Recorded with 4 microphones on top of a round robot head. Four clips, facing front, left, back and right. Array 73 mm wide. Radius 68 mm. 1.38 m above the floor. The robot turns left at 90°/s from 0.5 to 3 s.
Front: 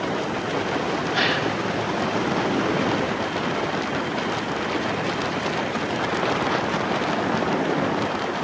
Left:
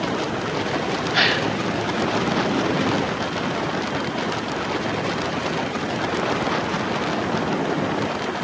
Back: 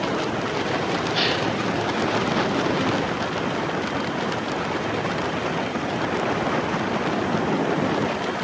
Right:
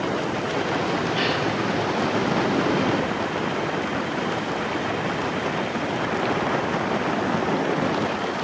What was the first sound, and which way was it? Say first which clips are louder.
A gasp: left 3 dB, front 4 dB; 70° left.